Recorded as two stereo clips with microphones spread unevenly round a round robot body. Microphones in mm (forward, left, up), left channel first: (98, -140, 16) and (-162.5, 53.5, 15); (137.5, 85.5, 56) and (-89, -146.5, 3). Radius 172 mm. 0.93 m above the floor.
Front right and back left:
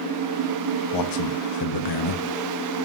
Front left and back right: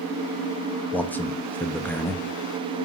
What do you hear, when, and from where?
0.9 s a man speaking: 45° right, 1.2 m